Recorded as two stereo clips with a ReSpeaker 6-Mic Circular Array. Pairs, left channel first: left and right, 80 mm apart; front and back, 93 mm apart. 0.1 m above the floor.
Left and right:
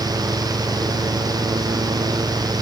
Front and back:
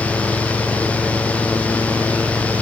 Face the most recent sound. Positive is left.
No sound to turn to.